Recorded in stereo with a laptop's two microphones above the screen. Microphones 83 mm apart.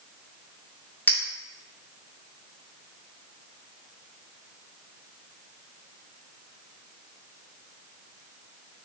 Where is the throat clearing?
No throat clearing in this recording.